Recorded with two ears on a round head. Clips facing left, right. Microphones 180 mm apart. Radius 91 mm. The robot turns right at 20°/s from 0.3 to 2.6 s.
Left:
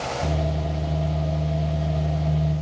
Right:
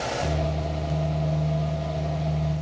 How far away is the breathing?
No breathing in this recording.